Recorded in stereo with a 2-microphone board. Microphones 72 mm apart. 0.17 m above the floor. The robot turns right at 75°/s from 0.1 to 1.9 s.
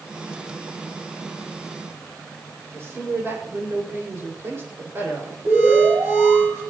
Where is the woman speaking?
35° right (ahead or behind), 6.5 m.